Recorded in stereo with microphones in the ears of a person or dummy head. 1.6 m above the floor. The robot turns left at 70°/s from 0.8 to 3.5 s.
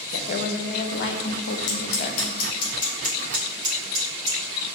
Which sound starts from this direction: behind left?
A woman speaking, at 0.1 s.